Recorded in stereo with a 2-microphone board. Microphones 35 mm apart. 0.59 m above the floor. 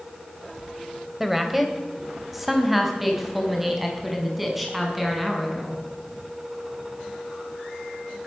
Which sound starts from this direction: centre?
A woman speaking, at 1.2 s.